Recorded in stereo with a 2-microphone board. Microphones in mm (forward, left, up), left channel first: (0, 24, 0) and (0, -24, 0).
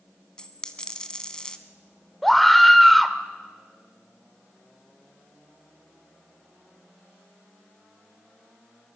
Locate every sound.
0.4 s a dropped coin: 20° left (ahead or behind), 1.1 m
2.2 s a scream: 5° left (ahead or behind), 1.1 m